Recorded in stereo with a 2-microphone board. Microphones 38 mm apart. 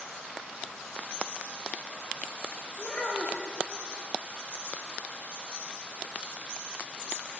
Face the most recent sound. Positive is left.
turn(degrees=30)  # may be behind; listen again after turning